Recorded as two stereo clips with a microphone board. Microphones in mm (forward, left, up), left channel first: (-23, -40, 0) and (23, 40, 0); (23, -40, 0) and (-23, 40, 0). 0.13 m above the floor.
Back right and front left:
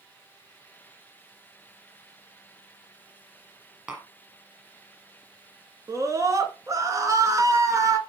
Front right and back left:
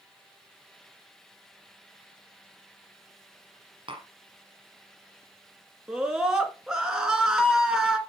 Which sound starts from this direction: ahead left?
A scream, at 5.9 s.